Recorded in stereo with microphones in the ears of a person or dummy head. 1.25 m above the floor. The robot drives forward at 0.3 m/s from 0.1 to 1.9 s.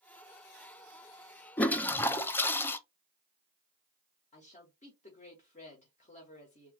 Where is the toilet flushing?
10° left (ahead or behind), 0.6 m; by 2.8 s 15° left (ahead or behind), 0.5 m.